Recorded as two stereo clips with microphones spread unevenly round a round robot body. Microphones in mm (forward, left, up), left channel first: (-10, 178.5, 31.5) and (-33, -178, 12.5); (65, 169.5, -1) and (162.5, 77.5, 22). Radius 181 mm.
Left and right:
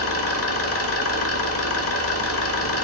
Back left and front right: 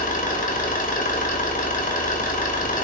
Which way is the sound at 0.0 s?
140° left.